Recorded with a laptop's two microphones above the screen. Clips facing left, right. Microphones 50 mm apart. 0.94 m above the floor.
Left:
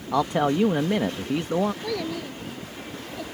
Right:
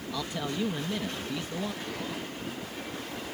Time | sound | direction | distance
0.1 | a man speaking | 60° left (ahead or behind) | ?
1.8 | a child speaking | 80° left | ?